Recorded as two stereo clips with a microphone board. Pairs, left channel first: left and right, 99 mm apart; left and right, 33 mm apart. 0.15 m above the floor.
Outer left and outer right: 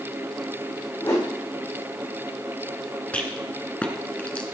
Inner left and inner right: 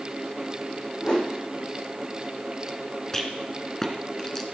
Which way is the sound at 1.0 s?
35° left (ahead or behind).